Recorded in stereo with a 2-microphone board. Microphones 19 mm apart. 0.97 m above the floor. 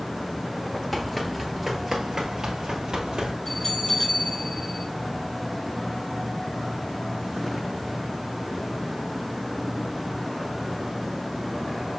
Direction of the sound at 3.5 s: 35° left (ahead or behind).